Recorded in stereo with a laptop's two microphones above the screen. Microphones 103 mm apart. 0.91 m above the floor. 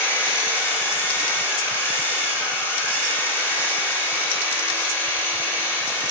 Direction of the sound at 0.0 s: 20° left (ahead or behind).